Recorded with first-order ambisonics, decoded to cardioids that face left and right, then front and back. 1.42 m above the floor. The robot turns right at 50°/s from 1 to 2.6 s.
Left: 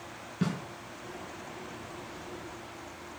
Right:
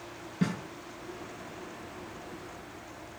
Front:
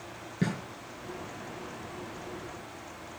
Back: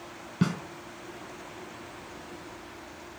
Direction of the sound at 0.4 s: 170° left.